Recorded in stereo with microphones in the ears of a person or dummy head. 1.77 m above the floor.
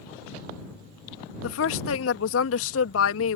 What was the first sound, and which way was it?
A woman speaking, 85° left.